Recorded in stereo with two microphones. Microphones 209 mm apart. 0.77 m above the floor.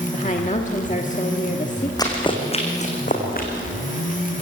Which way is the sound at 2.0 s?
20° left (ahead or behind).